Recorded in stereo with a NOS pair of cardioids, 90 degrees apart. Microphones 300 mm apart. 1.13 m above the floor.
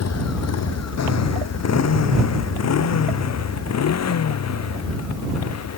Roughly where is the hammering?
No hammering in this recording.